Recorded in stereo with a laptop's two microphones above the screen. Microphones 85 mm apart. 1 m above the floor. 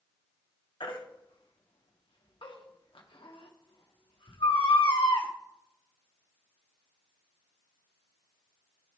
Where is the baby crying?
80° left, 1.2 m.